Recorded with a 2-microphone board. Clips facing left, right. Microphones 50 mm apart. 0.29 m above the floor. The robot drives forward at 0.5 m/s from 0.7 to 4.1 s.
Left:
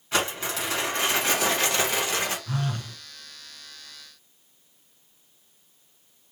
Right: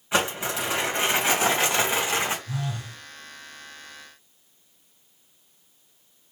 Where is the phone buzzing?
50° left (ahead or behind), 0.9 m; by 3.0 s 40° left (ahead or behind), 1.1 m.